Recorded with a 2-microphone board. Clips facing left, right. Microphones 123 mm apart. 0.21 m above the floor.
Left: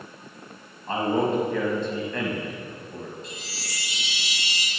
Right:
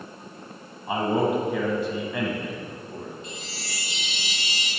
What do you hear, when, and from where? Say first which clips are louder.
0.9 s a man speaking: even; 10° right (ahead or behind), 1.4 m
3.2 s a chime: right 1 dB; 40° left (ahead or behind), 2.0 m